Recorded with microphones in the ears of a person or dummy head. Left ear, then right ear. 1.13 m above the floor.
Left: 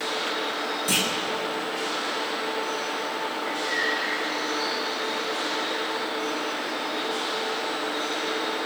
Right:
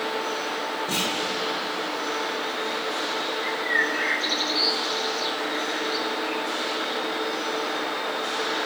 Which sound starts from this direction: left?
A clunk, at 0.9 s.